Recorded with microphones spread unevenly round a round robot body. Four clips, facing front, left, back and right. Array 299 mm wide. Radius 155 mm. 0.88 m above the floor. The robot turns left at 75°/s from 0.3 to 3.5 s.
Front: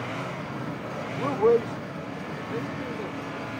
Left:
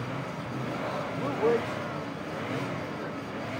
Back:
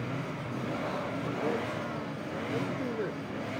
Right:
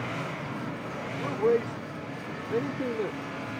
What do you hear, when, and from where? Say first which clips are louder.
1.2 s a man speaking: right 2 dB, front 14 dB; 10° left; by 3.2 s 140° right